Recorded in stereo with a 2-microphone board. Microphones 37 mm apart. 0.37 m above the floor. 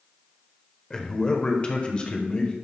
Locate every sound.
0.9 s a man speaking: 20° left (ahead or behind), 1.1 m; by 2.5 s 35° left (ahead or behind), 1.8 m